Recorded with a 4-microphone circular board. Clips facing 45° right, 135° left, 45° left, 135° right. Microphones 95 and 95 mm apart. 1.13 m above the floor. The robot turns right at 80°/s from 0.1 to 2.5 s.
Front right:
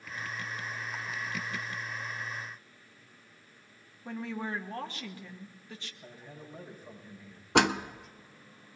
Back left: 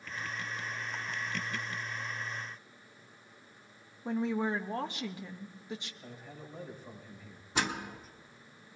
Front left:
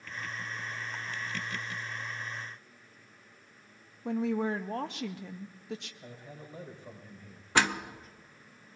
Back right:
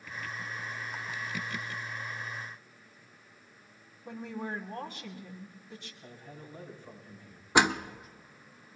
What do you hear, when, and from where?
4.0 s a woman speaking: 65° left, 1.1 m
6.0 s a man speaking: 45° left, 6.5 m
7.5 s a door slam: 65° right, 0.6 m